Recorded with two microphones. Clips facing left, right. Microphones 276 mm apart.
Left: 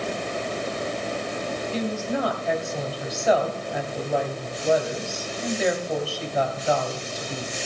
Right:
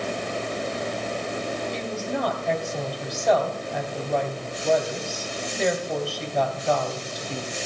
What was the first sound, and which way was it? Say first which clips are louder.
A woman speaking: left 2 dB; 5° left (ahead or behind).